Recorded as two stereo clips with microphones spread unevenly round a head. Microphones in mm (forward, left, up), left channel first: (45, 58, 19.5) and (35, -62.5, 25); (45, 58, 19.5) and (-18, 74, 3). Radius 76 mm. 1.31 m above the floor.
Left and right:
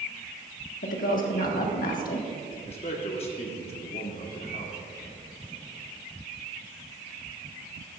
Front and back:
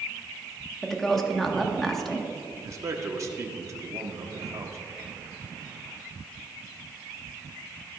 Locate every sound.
0.8 s a woman speaking: 75° left, 1.6 m
2.6 s a man speaking: 135° left, 1.3 m